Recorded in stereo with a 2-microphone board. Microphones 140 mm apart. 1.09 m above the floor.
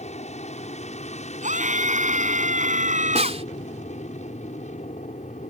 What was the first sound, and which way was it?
An aircraft, 55° left (ahead or behind).